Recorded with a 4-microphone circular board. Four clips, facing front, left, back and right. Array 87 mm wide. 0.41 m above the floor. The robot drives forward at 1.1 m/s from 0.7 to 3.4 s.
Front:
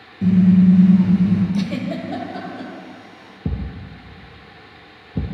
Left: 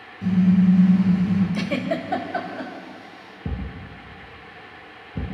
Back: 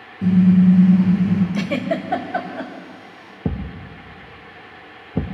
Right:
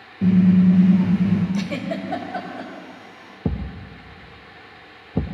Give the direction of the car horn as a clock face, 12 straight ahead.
3 o'clock.